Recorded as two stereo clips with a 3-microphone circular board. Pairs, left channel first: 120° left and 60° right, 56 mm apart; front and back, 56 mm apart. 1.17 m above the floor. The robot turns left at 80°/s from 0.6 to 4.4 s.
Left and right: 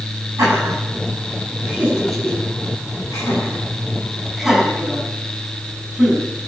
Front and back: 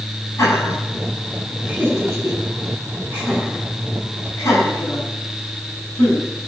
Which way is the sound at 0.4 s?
30° right.